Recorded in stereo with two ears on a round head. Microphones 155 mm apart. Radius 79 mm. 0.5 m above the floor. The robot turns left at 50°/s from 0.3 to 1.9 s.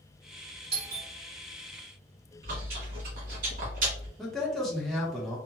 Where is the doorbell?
35° right (ahead or behind), 1.4 m.